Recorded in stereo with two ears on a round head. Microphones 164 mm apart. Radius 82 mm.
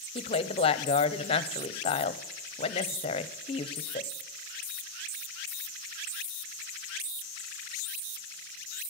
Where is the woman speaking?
30° left (ahead or behind), 0.8 m.